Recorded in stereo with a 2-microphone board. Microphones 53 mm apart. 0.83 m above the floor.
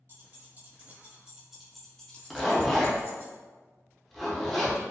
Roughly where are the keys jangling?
Right.